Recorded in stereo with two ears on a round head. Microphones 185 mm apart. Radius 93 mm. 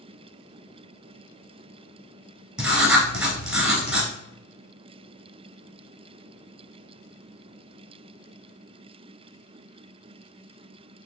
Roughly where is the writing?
Centre.